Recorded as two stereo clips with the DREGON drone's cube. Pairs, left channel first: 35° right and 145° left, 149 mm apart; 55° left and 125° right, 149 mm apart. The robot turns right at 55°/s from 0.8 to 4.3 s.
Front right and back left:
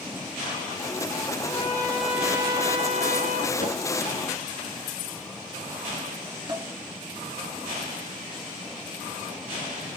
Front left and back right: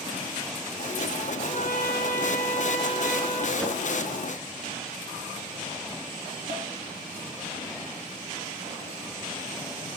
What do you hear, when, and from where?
1.4 s a trumpet: 20° left, 1.8 m; by 3.5 s 130° left, 1.8 m
3.6 s a whoosh: 30° right, 2.5 m; by 3.8 s 20° right, 2.5 m
6.5 s dishes clattering: 155° right, 2 m